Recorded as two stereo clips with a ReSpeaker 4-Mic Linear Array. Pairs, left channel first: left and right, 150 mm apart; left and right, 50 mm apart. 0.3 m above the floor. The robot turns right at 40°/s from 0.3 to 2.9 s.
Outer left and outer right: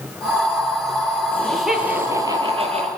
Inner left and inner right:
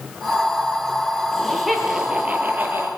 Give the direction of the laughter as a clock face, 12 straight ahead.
6 o'clock.